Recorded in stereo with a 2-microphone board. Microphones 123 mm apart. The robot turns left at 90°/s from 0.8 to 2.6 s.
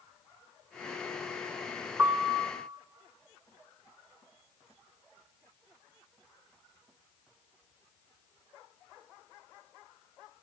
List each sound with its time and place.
2.0 s a piano: 160° right, 0.7 m; by 2.5 s 150° left, 0.7 m